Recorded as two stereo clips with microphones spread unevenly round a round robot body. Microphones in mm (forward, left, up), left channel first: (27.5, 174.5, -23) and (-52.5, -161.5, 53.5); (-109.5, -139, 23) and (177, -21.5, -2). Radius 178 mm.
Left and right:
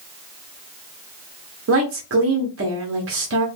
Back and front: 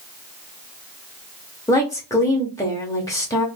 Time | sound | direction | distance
1.7 | a woman speaking | 80° right | 0.7 m